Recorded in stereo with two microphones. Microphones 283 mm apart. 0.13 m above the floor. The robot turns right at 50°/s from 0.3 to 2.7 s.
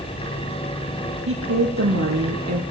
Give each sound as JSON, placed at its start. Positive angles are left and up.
{"t": 1.3, "sound": "a woman speaking", "azimuth_deg": -135, "distance_m": 3.5}